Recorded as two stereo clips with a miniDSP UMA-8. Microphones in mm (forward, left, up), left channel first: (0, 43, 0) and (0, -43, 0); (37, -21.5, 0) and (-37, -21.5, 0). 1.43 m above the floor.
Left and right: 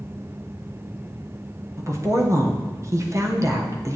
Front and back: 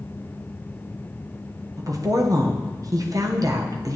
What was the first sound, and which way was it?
A woman speaking, 145° right.